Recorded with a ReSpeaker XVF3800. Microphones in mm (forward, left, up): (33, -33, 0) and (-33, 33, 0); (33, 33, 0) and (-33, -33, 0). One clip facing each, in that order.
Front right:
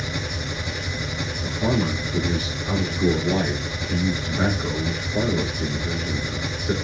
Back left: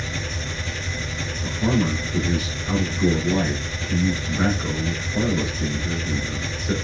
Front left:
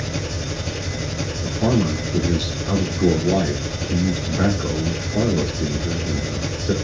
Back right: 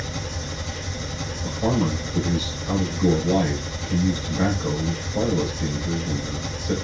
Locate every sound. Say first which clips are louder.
0.0 s an engine running: front right 1 dB, front left 4 dB; 30° left, 1.3 m
1.4 s a man speaking: back left 1 dB, front left 3 dB; 35° left, 4 m